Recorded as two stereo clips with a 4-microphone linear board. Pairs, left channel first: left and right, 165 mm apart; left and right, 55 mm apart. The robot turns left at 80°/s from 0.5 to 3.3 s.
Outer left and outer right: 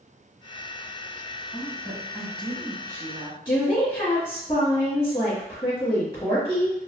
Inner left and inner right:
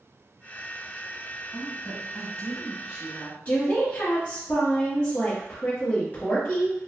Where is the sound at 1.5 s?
25° left (ahead or behind), 1.1 m; by 3.4 s 30° right (ahead or behind), 1.1 m.